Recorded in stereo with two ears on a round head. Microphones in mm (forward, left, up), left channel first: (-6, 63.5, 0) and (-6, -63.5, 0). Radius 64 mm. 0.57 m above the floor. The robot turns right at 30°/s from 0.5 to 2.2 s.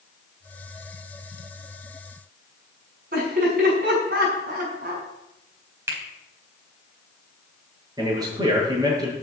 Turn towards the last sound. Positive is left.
turn(degrees=-25)  # may be behind; listen again after turning